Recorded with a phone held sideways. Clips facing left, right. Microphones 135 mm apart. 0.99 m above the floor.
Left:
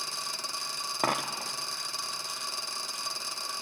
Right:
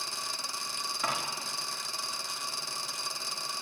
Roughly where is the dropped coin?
Left.